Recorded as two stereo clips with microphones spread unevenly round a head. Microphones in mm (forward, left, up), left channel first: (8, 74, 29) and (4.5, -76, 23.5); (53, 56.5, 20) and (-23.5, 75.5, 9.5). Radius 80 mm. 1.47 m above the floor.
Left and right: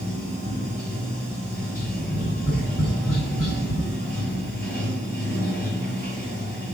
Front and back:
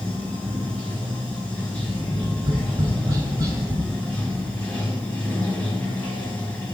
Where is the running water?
60° left, 4 m.